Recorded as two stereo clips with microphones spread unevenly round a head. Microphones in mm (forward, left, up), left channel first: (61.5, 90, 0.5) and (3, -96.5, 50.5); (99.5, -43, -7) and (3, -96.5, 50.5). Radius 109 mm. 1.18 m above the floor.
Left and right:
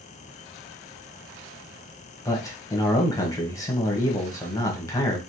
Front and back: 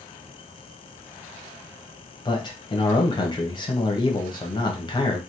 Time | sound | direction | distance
2.2 | a man speaking | 5° left | 1.1 m